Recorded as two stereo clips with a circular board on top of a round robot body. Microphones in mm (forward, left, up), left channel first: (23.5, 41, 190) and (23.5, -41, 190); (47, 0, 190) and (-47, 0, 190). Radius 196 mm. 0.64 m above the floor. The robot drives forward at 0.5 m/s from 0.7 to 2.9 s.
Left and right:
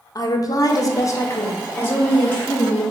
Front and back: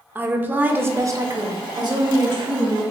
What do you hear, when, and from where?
0.1 s a woman speaking: 115° left, 0.7 m; by 2.8 s 160° left, 1.5 m